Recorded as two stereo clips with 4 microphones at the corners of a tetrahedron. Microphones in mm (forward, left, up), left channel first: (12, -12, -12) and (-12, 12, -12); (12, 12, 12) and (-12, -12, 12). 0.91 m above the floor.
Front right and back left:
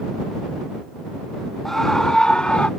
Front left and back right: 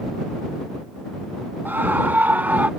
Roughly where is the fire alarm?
I don't hear a fire alarm.